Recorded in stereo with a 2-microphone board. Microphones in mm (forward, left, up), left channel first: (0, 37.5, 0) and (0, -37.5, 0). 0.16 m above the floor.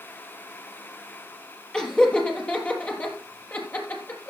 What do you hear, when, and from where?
1.7 s laughter: 10° left (ahead or behind), 4 m; by 4.3 s 30° left (ahead or behind), 4 m